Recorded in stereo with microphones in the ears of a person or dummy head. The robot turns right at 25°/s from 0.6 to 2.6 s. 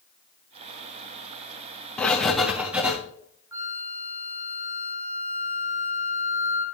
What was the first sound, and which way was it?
Writing, 10° left (ahead or behind).